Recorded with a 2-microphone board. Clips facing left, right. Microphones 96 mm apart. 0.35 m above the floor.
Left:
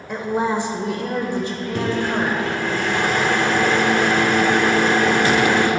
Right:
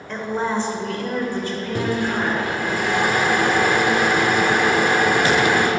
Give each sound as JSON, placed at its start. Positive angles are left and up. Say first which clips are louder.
{"t": 0.1, "sound": "a woman speaking", "louder": "left 2 dB", "side_deg": 10, "distance_m": 1.1}
{"t": 1.8, "sound": "a microwave", "louder": "left 1 dB", "side_deg": -10, "distance_m": 0.7}